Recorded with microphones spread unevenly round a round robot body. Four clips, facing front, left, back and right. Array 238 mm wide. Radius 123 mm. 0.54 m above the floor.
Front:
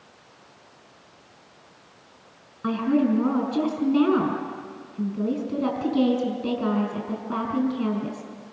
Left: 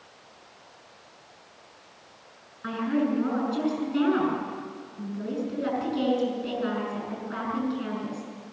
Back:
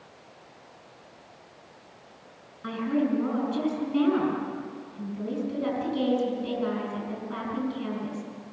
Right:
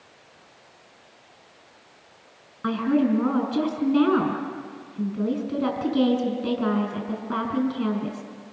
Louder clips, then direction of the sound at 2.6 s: Right 4 dB, front 5 dB; 45° right.